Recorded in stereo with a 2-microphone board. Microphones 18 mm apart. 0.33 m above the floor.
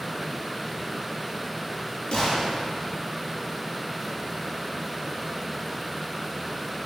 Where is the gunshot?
65° left (ahead or behind), 6.5 m.